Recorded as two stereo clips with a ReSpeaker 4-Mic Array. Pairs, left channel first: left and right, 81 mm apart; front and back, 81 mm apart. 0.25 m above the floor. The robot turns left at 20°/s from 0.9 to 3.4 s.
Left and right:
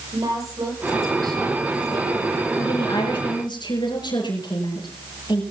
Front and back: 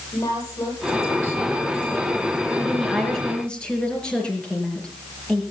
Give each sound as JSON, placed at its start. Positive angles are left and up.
{"t": 0.1, "sound": "a woman speaking", "azimuth_deg": -45, "distance_m": 9.5}
{"t": 2.6, "sound": "a woman speaking", "azimuth_deg": 95, "distance_m": 5.5}